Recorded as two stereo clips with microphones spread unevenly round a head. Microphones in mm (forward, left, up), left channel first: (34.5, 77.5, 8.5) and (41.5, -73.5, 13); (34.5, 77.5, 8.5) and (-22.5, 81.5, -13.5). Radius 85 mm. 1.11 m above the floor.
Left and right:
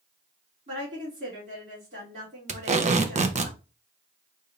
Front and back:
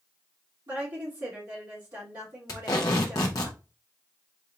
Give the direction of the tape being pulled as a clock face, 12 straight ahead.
2 o'clock.